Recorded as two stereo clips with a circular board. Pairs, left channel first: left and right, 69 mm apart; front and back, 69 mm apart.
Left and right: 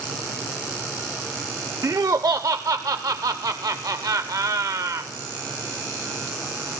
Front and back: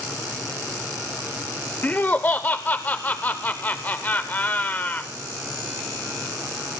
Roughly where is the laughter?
Ahead right.